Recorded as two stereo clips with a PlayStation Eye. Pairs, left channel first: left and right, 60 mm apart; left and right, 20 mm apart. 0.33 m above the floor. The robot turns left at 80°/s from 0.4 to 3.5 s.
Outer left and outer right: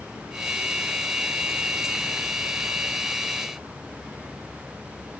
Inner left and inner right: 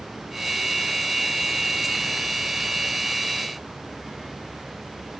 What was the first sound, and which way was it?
Only background noise.